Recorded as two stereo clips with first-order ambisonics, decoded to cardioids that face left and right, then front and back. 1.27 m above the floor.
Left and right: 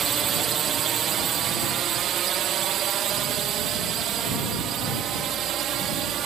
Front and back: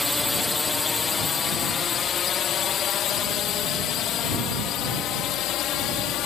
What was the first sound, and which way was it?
A drone, 75° right.